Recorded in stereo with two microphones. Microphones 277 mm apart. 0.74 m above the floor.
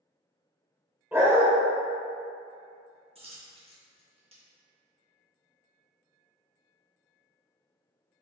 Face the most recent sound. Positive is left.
turn(degrees=-20)  # may be behind; listen again after turning